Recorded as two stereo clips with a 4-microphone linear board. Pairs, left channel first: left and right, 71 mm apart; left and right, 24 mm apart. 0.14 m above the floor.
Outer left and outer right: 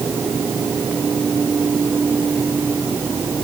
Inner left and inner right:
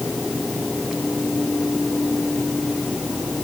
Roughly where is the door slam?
I don't hear a door slam.